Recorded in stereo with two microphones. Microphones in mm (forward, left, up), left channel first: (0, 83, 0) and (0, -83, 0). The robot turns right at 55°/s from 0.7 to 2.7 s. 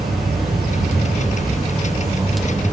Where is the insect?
100° right, 1.4 m; by 2.7 s 10° left, 1.4 m.